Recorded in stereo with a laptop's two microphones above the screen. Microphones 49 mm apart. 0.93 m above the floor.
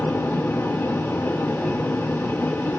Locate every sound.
0.0 s a fan: 40° left (ahead or behind), 1.3 m